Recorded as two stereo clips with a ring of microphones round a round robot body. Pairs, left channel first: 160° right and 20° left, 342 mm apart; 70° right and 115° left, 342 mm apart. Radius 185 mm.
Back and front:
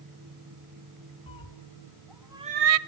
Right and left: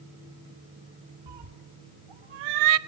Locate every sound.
1.3 s a cat meowing: 125° left, 2.5 m; by 2.8 s 60° left, 0.6 m